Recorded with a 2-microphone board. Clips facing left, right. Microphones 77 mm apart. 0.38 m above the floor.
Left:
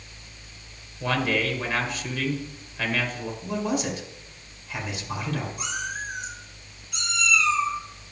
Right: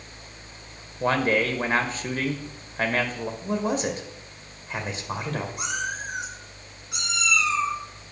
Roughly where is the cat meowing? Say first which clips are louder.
Right 2 dB; right.